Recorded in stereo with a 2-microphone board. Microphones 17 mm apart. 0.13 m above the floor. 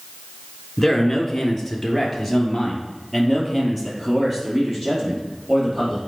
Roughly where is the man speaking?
Centre.